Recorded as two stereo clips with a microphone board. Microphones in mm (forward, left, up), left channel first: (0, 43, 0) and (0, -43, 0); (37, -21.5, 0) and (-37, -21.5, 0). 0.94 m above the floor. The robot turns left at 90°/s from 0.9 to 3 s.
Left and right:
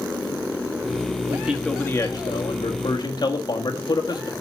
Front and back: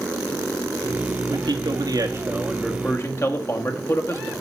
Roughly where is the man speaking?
Behind right.